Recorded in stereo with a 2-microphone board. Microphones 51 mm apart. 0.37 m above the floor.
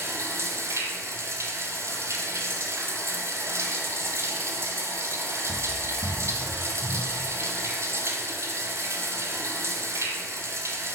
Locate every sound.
0.0 s running water: 70° right (ahead or behind), 1.0 m